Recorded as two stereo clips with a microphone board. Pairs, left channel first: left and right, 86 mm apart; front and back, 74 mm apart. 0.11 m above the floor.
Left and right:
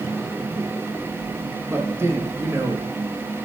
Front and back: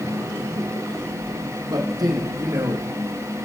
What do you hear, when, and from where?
1.7 s a man speaking: 150° right, 3.5 m